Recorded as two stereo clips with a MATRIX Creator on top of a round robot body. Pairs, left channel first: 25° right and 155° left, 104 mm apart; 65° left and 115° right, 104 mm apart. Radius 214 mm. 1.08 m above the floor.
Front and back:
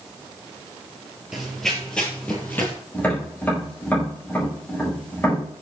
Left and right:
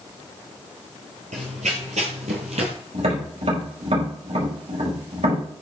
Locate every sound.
1.3 s running footsteps: 115° right, 1.3 m; by 2.7 s 95° right, 1.8 m
2.9 s tapping: 95° right, 4.5 m